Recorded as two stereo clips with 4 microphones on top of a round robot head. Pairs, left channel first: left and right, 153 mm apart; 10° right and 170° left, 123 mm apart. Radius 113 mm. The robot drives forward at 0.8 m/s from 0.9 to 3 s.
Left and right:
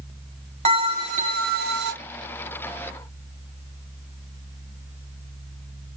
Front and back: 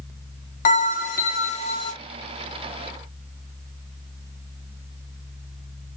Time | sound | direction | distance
0.7 | a bell | 35° right | 1.2 m